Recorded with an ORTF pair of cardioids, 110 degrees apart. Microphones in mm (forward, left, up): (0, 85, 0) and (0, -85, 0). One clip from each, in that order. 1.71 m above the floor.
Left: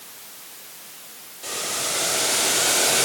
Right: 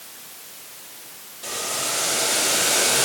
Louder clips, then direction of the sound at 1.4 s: Even; 5° right.